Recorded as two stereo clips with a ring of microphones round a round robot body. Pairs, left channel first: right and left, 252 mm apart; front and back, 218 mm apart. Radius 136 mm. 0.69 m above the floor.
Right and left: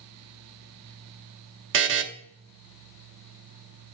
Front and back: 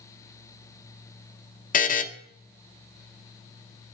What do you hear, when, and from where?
1.7 s a buzzer: 50° left, 0.8 m